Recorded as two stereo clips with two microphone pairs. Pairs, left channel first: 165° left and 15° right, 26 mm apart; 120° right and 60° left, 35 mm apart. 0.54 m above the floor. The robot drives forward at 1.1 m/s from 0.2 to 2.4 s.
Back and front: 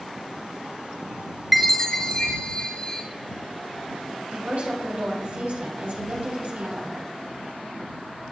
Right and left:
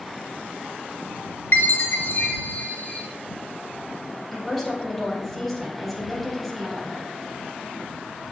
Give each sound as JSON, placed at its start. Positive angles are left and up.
{"t": 1.5, "sound": "a chime", "azimuth_deg": -100, "distance_m": 0.8}
{"t": 4.3, "sound": "a woman speaking", "azimuth_deg": -35, "distance_m": 4.5}